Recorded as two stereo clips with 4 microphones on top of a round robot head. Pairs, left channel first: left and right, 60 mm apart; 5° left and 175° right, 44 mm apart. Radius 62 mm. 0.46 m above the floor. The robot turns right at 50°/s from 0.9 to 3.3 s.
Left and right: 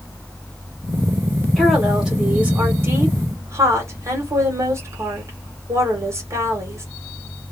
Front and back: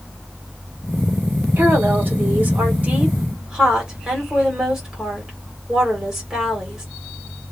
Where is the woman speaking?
170° left, 1.8 m; by 6.8 s 105° right, 1.8 m.